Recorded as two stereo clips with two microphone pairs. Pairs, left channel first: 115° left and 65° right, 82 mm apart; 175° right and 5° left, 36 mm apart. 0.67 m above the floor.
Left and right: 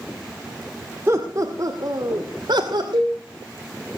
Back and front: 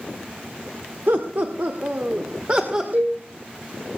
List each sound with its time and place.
1.1 s laughter: 5° right, 1.7 m; by 2.8 s 55° right, 2 m
2.9 s a cowbell: 30° right, 9 m